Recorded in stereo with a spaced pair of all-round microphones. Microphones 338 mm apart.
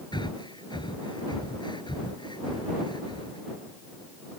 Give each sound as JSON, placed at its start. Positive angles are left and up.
{"t": 0.1, "sound": "breathing", "side_deg": 15}